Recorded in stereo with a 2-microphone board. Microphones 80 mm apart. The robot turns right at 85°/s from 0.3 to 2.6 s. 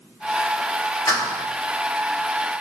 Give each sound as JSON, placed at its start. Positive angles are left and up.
{"t": 1.1, "sound": "a clap", "azimuth_deg": 50, "distance_m": 2.5}